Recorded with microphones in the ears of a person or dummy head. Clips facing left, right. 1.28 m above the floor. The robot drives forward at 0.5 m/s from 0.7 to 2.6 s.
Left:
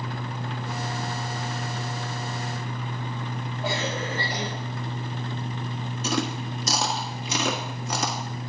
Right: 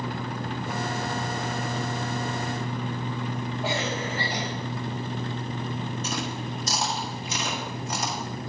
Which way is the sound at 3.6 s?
5° right (ahead or behind).